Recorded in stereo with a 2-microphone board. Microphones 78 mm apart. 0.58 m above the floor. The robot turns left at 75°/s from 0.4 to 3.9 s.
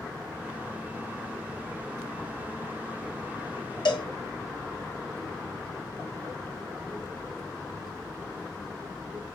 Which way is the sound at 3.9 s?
75° left (ahead or behind).